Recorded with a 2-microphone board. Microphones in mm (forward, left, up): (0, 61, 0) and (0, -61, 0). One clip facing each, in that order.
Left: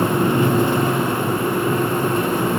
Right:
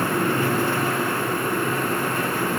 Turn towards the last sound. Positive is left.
No sound to turn to.